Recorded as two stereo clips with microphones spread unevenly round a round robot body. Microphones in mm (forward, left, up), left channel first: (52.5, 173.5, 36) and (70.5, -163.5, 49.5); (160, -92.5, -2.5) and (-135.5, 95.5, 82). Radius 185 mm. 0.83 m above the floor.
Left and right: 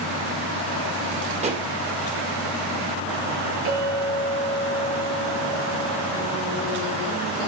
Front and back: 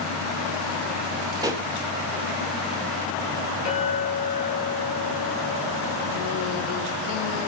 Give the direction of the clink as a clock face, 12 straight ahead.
4 o'clock.